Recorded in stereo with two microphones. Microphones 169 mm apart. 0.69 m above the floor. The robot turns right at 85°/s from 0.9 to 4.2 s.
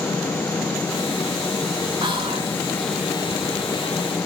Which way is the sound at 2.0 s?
30° right (ahead or behind).